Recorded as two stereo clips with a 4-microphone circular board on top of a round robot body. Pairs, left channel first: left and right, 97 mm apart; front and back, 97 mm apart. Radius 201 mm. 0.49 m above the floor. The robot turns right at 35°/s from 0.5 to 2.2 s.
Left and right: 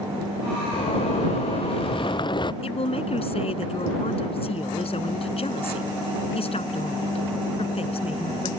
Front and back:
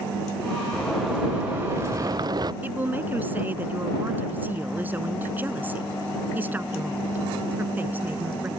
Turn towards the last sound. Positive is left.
turn(degrees=110)